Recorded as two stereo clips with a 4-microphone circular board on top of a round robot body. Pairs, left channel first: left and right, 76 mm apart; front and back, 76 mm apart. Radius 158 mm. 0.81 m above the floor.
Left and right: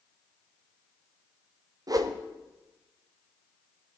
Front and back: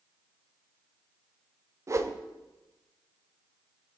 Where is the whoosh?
130° right, 1.0 m.